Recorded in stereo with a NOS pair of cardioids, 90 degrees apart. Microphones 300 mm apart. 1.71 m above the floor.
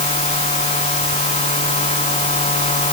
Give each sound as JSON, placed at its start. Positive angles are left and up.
{"t": 0.0, "sound": "a machine running", "azimuth_deg": 20}